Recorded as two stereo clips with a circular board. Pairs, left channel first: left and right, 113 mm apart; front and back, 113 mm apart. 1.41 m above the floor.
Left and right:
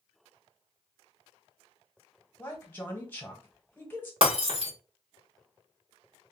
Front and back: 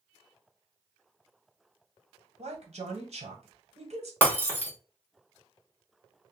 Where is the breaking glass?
70° right, 1.2 m.